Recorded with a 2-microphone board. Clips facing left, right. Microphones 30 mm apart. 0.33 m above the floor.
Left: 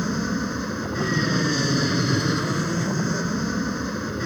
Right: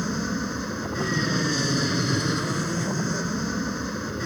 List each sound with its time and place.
0.0 s an aircraft: 5° left (ahead or behind)